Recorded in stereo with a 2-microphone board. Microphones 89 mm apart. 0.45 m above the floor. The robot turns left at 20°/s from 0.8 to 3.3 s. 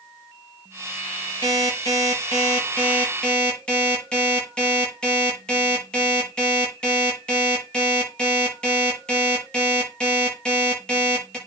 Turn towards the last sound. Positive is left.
turn(degrees=10)